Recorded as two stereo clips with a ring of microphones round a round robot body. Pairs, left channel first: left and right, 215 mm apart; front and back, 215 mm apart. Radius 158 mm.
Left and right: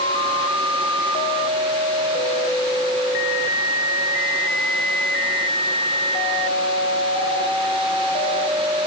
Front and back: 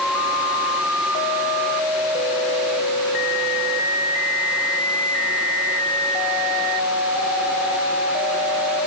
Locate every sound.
Only background noise.